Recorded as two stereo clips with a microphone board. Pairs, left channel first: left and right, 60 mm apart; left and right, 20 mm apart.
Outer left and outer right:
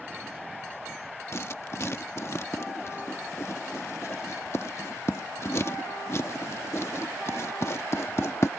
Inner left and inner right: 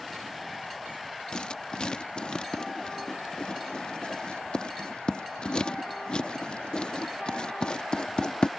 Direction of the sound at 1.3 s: 50° left (ahead or behind).